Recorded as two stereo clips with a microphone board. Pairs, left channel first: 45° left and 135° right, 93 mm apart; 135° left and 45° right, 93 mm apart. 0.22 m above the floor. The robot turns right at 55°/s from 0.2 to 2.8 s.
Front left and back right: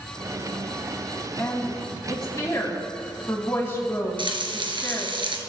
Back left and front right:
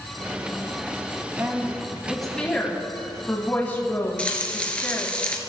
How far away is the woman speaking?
About 1.6 m.